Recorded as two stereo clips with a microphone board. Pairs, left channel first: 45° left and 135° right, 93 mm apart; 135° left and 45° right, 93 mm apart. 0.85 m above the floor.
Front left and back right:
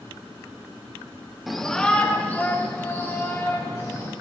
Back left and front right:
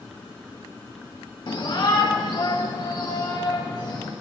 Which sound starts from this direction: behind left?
A shout, at 1.5 s.